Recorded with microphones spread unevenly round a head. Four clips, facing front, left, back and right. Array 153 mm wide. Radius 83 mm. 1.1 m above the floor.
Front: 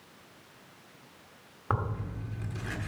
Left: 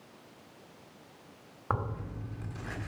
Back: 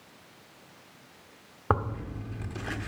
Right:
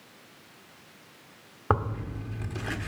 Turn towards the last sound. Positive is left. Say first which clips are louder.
# right 6 dB, back 4 dB
turn(degrees=-125)